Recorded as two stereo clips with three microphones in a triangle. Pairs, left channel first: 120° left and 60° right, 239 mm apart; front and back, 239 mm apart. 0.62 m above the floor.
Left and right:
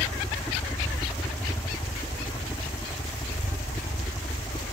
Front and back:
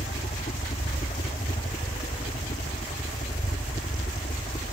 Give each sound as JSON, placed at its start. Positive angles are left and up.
{"t": 0.0, "sound": "a helicopter", "azimuth_deg": 35}